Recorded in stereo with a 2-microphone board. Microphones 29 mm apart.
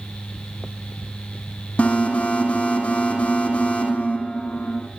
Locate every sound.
1.8 s an alarm: 45° left (ahead or behind), 9.5 m